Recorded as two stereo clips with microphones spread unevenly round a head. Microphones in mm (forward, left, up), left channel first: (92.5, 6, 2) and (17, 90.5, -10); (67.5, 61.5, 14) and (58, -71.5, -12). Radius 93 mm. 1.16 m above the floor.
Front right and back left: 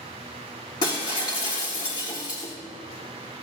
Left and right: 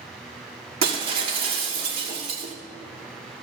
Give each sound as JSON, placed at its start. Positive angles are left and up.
{"t": 0.8, "sound": "breaking glass", "azimuth_deg": -110, "distance_m": 1.3}